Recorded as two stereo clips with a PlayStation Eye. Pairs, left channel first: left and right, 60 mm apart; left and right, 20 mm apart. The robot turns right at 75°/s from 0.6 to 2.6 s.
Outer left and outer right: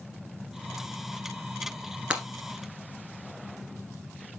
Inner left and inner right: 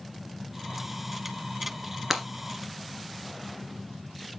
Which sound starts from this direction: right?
Breaking glass, at 2.1 s.